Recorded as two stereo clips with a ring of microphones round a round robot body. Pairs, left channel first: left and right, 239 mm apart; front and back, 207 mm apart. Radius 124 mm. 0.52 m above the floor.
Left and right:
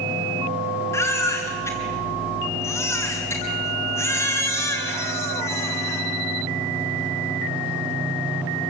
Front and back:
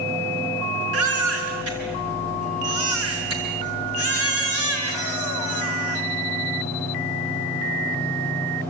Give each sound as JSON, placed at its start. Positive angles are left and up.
{"t": 0.9, "sound": "a baby crying", "azimuth_deg": 170, "distance_m": 4.5}